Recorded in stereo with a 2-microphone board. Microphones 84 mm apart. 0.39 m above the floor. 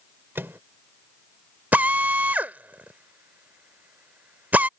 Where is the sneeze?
No sneeze in this recording.